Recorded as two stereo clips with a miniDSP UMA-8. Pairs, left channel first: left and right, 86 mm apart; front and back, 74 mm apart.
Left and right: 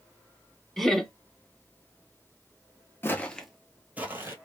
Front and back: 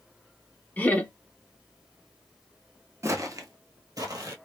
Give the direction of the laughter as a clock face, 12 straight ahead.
12 o'clock.